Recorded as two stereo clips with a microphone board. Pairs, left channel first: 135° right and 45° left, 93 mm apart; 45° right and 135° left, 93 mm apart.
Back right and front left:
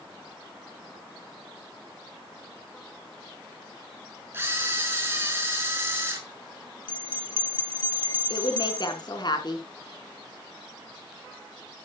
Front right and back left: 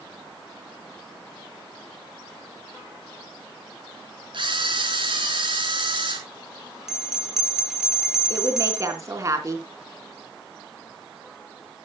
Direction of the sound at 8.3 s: 170° right.